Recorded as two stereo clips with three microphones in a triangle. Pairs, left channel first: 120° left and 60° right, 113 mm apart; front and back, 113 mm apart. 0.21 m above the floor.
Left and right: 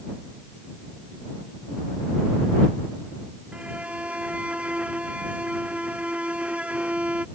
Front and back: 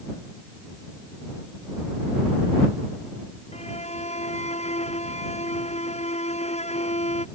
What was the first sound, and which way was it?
A violin, 20° left.